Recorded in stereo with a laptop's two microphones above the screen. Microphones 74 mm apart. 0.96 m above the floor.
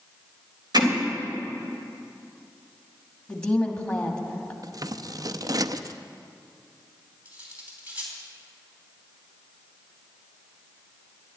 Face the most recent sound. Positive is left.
turn(degrees=-20)  # may be behind; listen again after turning